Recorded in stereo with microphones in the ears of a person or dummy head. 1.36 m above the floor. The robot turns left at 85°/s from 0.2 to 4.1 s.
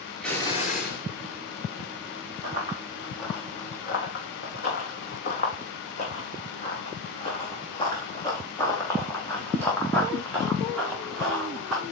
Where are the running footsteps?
50° right (ahead or behind), 3.5 m; by 11.8 s centre (ahead or behind), 4 m.